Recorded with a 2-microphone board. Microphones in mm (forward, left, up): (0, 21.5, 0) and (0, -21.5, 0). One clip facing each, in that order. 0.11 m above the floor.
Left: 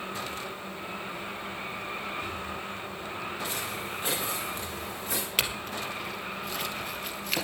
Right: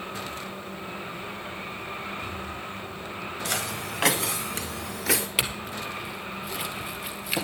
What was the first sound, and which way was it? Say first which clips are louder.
Footsteps: right 3 dB; 85° right.